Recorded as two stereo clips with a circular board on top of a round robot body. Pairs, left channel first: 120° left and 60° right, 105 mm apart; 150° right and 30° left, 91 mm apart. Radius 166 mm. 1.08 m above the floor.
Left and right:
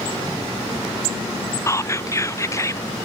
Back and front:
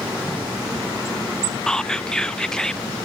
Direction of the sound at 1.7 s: 135° left.